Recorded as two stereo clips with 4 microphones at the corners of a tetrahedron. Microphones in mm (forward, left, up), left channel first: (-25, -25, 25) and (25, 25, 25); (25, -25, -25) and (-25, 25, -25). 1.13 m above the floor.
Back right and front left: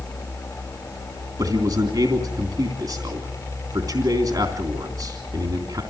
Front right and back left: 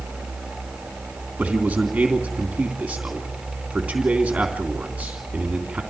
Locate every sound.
1.4 s a man speaking: 60° left, 3 m